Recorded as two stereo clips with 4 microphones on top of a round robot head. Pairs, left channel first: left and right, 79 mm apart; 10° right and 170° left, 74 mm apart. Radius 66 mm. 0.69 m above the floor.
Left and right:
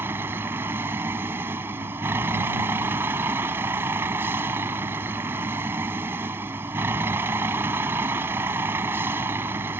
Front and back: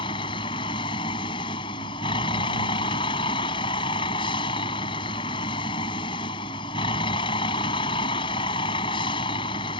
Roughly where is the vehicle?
Ahead.